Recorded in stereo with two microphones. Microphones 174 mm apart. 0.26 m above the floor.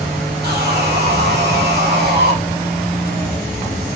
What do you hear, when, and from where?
0.4 s sawing: 70° right (ahead or behind), 2.5 m